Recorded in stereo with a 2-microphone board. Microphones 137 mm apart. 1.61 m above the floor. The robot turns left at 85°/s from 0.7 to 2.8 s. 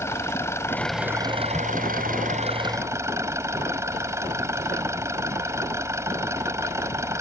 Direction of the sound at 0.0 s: 20° left.